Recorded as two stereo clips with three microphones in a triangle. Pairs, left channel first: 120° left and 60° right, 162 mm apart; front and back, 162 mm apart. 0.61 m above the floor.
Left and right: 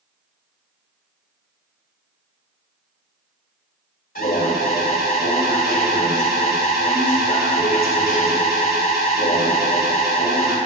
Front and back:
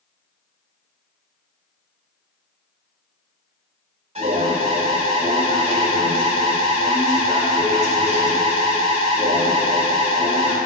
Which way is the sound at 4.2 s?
135° left.